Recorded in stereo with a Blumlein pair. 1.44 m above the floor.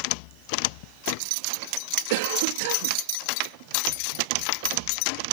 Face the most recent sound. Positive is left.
turn(degrees=-50)